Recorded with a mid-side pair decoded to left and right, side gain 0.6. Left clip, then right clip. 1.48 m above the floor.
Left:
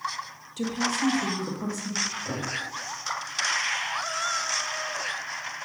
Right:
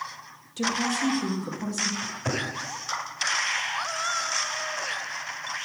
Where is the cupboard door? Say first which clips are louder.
Right 1 dB; 60° right, 4.5 m.